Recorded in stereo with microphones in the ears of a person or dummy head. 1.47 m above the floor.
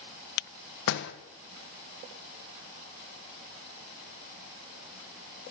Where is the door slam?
65° left (ahead or behind), 0.8 m.